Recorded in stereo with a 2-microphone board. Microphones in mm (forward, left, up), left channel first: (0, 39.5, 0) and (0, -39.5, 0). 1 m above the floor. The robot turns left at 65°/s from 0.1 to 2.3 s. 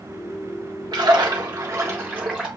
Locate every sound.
0.9 s a splash: 80° right, 1.5 m; by 2.5 s 170° right, 1.5 m